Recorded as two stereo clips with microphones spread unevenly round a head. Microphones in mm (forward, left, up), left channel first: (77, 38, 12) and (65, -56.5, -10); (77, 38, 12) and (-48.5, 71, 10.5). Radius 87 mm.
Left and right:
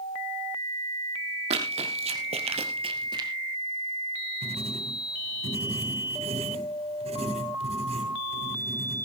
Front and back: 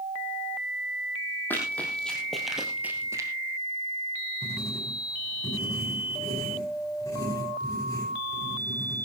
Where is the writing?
90° right, 7 m.